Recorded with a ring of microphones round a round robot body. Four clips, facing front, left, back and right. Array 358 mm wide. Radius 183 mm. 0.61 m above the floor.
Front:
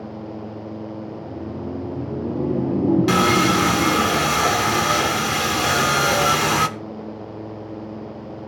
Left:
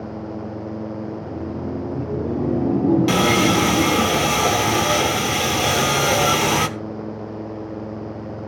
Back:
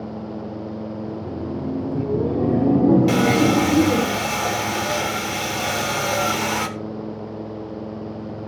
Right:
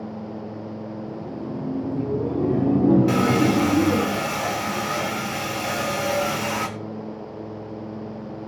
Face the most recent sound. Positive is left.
turn(degrees=65)